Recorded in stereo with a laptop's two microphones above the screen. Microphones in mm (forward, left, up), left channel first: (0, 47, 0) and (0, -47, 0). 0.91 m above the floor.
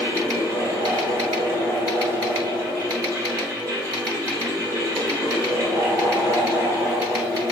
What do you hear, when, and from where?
0.0 s a fan: 30° right (ahead or behind), 1.3 m